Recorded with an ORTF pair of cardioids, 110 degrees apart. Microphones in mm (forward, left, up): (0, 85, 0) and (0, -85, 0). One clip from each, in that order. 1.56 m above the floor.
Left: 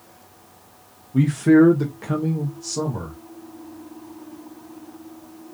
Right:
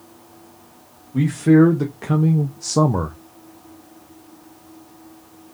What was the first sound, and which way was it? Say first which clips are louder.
A man speaking: even; 10° left.